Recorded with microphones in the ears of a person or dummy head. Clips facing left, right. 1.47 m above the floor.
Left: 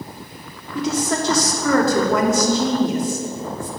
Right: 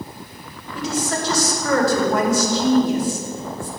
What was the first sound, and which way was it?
A woman speaking, 70° left (ahead or behind).